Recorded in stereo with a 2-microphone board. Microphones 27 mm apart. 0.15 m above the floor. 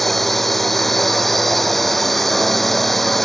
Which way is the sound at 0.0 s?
5° left (ahead or behind).